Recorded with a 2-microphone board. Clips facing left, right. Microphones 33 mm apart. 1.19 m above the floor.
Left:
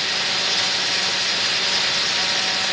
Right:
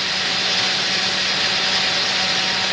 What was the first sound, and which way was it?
Only background noise.